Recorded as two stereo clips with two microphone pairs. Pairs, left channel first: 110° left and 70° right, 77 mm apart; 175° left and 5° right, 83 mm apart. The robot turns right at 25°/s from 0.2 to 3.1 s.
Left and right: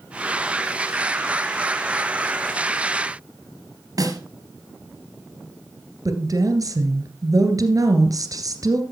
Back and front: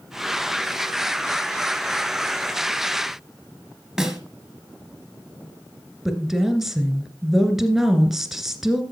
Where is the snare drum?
90° right, 2.5 m.